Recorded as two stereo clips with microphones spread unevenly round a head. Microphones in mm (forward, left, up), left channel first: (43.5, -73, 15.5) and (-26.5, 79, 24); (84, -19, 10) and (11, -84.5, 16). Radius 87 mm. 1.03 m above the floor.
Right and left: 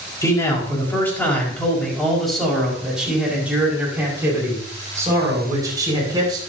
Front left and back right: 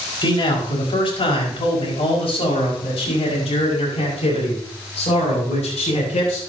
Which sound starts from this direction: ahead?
A man speaking, at 0.2 s.